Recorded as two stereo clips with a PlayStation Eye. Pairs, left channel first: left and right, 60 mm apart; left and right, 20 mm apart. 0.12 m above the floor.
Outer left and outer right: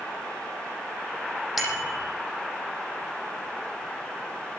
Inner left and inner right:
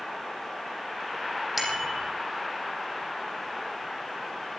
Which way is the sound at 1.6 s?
5° right (ahead or behind).